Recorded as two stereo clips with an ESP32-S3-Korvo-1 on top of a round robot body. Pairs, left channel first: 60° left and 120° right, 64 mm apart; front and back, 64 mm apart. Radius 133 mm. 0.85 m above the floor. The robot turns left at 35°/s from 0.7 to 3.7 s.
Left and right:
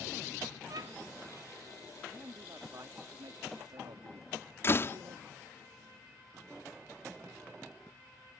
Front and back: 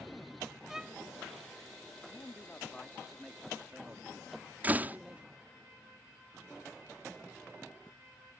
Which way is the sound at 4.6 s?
115° left.